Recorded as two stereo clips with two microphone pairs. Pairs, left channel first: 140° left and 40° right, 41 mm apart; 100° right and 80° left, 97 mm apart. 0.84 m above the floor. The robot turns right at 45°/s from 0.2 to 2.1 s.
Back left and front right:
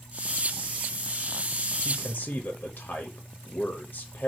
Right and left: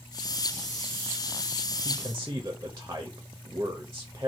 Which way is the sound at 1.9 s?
115° left.